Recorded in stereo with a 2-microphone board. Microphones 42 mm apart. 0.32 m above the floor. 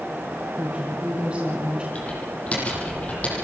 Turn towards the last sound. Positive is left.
turn(degrees=30)  # may be behind; listen again after turning